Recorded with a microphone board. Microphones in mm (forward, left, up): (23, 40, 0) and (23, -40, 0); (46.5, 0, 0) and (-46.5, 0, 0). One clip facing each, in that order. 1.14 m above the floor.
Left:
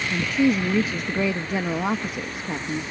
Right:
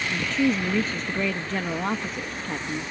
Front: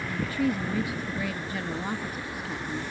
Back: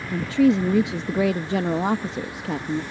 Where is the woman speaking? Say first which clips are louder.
Left 3 dB, back 10 dB; 170° left.